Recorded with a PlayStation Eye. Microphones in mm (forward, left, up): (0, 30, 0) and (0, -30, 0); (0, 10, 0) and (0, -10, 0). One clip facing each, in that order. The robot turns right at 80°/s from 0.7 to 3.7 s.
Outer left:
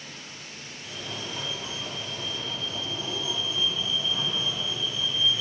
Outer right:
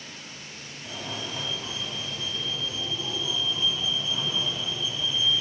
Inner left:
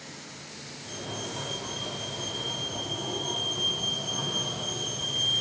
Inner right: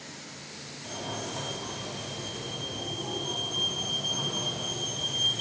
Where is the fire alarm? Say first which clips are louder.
Outer right 2 dB, inner right 1 dB; 50° right, 3 m; by 5.4 s straight behind, 3 m.